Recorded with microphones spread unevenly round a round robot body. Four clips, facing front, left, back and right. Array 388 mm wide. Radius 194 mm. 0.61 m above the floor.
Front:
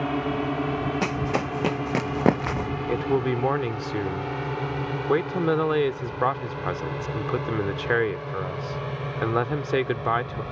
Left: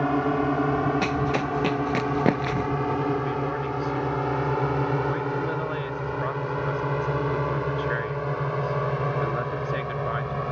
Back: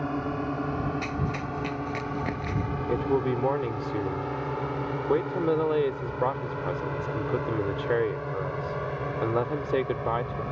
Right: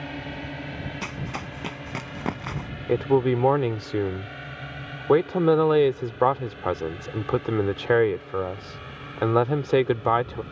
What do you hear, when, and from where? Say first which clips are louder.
0.0 s a drone: left 12 dB, front 4 dB; 80° left; by 10.5 s 75° left
1.0 s running footsteps: left 10 dB, front 5 dB; 25° left
2.9 s a man speaking: right 4 dB, front 1 dB; 65° right